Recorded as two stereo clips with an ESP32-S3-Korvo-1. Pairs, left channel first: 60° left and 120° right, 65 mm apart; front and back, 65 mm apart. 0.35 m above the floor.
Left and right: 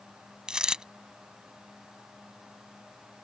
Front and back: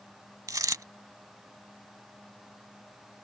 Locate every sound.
0.5 s a dropped coin: 165° left